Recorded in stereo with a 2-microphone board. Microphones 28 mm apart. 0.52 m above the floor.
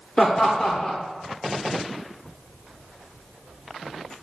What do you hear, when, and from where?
0.2 s laughter: 15° left (ahead or behind), 0.9 m